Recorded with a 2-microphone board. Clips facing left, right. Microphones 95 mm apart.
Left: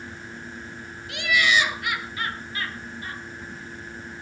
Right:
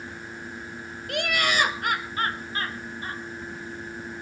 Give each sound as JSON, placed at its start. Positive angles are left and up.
{"t": 1.1, "sound": "laughter", "side_deg": -50, "distance_m": 1.9}